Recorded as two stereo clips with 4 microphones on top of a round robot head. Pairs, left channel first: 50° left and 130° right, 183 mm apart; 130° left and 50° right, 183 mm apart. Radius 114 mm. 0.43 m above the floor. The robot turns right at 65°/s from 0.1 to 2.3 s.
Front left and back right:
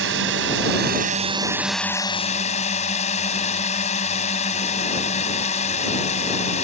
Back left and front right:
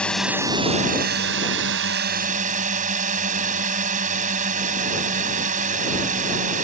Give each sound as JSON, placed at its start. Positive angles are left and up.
{"t": 0.0, "sound": "a drone", "azimuth_deg": -145}